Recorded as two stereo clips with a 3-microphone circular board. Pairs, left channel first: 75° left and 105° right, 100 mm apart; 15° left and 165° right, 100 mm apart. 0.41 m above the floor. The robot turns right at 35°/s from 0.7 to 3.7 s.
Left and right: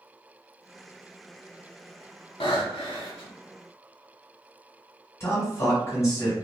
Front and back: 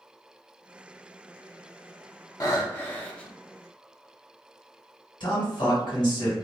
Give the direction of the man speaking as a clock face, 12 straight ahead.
11 o'clock.